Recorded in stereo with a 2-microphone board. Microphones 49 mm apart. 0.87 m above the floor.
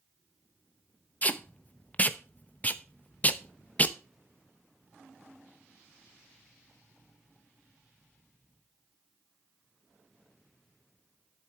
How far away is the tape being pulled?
About 0.7 m.